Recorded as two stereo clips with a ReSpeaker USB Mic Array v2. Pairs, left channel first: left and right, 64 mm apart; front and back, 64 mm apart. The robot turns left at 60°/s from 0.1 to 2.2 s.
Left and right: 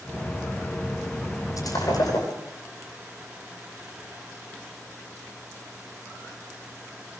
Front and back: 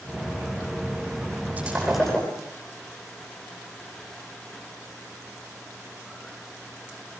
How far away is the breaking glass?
About 10 m.